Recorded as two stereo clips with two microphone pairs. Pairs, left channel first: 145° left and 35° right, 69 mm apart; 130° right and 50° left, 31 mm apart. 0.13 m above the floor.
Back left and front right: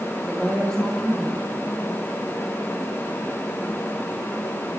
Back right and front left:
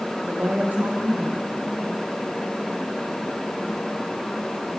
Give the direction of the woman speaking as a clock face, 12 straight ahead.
10 o'clock.